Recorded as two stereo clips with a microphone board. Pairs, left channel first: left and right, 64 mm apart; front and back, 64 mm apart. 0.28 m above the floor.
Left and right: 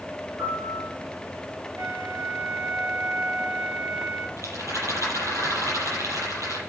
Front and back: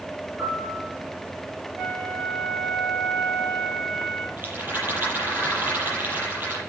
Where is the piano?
120° right, 3.5 m.